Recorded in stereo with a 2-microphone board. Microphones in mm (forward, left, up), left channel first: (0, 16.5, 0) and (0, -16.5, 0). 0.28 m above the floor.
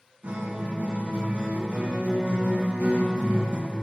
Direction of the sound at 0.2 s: 55° right (ahead or behind).